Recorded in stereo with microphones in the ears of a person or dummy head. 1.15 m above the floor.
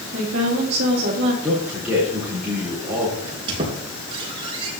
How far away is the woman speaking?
About 2 m.